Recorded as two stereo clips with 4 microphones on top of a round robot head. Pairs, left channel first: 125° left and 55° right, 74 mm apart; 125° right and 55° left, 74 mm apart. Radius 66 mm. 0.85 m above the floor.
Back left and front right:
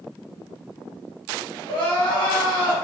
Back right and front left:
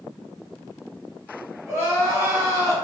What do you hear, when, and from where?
1.7 s crying: 115° left, 1.5 m